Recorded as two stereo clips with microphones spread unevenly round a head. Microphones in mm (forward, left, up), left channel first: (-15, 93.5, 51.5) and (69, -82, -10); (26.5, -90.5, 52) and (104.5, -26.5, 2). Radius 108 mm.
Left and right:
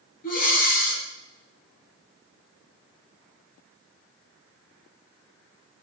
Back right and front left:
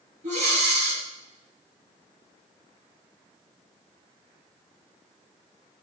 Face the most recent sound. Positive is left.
turn(degrees=80)